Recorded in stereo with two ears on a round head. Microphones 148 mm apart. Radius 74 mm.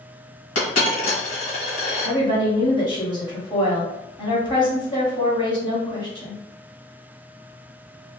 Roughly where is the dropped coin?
Left.